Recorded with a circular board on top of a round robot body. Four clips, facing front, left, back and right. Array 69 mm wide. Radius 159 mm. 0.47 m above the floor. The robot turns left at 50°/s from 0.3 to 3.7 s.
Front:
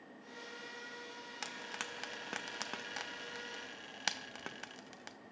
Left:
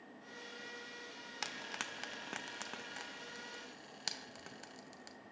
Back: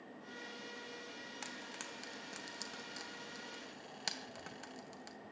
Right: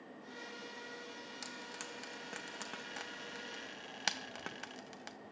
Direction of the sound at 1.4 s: 65° left.